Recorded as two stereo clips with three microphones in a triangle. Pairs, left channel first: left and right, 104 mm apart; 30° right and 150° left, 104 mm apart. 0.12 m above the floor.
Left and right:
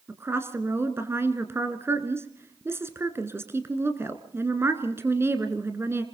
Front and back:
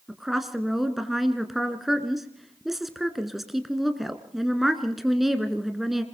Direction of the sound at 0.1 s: 120° right.